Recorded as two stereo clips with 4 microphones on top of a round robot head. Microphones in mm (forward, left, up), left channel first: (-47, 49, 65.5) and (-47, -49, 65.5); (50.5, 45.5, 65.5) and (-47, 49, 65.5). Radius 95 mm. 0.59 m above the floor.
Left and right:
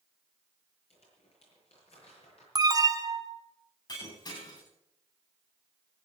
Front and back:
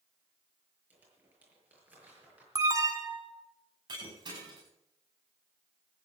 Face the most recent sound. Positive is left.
turn(degrees=135)